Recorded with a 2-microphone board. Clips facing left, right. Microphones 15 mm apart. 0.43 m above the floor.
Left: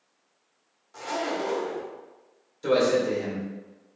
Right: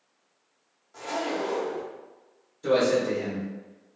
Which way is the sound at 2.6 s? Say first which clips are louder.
Even; 45° left (ahead or behind).